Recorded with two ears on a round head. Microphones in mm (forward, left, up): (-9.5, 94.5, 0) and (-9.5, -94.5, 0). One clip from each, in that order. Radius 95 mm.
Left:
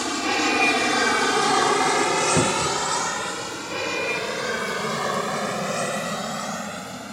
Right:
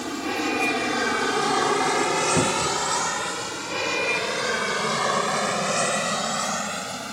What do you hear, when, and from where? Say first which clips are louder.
0.0 s an aircraft: left 4 dB; 30° left (ahead or behind); by 7.1 s 30° right (ahead or behind)
2.4 s a cupboard door: left 1 dB; 15° left (ahead or behind)